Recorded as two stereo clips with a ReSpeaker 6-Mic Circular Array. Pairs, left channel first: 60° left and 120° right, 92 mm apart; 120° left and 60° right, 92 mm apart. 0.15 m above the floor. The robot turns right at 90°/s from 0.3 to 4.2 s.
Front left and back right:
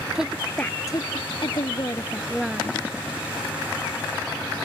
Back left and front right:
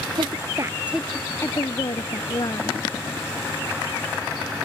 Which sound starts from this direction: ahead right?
A woman speaking, at 0.1 s.